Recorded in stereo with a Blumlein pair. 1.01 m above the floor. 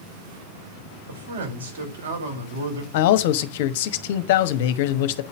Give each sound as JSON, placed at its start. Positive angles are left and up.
{"t": 1.1, "sound": "a man speaking", "azimuth_deg": -65, "distance_m": 4.5}
{"t": 2.9, "sound": "a man speaking", "azimuth_deg": 50, "distance_m": 1.1}